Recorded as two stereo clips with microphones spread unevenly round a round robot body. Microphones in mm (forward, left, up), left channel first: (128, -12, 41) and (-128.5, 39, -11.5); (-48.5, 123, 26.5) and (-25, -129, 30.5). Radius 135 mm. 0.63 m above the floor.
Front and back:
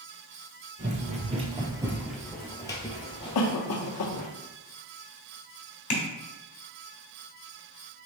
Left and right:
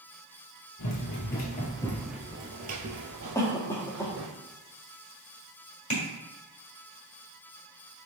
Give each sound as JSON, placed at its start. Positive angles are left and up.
{"t": 0.8, "sound": "running footsteps", "azimuth_deg": 105, "distance_m": 0.9}
{"t": 3.4, "sound": "a cough", "azimuth_deg": 20, "distance_m": 1.0}
{"t": 5.9, "sound": "tapping", "azimuth_deg": 30, "distance_m": 1.4}